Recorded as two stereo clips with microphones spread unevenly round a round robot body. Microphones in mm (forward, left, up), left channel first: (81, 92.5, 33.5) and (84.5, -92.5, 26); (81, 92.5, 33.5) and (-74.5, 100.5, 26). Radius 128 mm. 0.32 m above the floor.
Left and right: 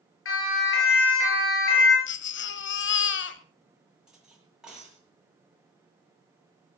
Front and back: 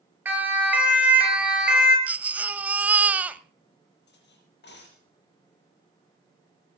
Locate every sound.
0.2 s a siren: 100° left, 7 m; by 2.0 s 90° left, 6.5 m
2.1 s a baby crying: 100° left, 1.1 m
4.1 s cutlery clinking: straight ahead, 6.5 m